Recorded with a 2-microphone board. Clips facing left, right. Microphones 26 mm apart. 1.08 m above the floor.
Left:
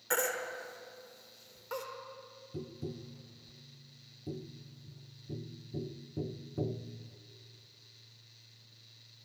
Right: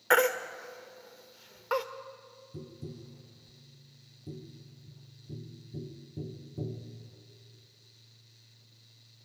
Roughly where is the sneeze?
I don't hear a sneeze.